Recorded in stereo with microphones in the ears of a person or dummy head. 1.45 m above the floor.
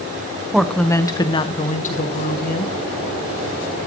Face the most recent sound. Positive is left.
turn(degrees=55)  # may be behind; listen again after turning